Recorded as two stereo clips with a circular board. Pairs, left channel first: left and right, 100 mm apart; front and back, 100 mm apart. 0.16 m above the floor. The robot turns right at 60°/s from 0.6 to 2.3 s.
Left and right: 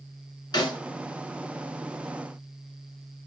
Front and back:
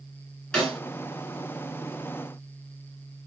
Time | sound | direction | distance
0.5 | a snare drum | 80° left | 1.5 m